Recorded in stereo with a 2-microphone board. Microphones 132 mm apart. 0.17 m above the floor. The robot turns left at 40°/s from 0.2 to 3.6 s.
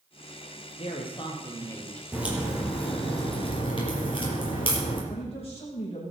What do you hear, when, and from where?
0.8 s a woman speaking: 55° left, 3.5 m; by 2.0 s 5° left, 3.5 m
2.1 s a crack: 165° right, 5.5 m; by 5.0 s 135° left, 5.5 m
5.1 s a man speaking: 45° left (ahead or behind), 8 m